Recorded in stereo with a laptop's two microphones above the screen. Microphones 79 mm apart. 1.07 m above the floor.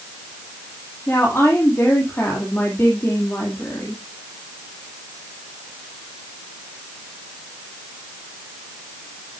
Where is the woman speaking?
30° left (ahead or behind), 2.5 m.